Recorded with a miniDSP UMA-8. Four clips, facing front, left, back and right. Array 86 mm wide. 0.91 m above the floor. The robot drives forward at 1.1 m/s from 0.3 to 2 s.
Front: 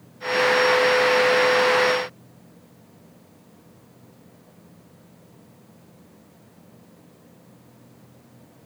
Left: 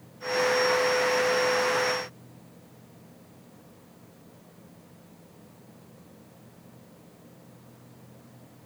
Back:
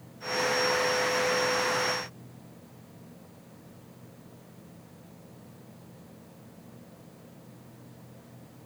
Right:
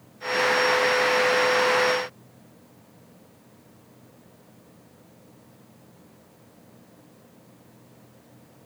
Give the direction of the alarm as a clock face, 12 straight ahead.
I don't hear an alarm.